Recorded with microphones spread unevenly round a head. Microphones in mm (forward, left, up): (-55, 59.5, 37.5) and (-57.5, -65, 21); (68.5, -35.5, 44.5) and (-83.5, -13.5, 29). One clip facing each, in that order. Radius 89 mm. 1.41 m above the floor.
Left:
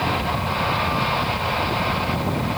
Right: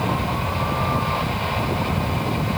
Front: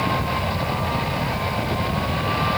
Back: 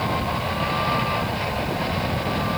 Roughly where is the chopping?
No chopping in this recording.